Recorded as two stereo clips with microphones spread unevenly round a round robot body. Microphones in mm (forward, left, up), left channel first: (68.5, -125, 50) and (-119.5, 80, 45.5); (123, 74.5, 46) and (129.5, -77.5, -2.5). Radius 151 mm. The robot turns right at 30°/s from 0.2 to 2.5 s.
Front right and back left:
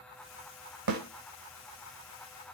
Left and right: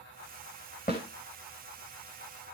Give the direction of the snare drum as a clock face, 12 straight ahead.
7 o'clock.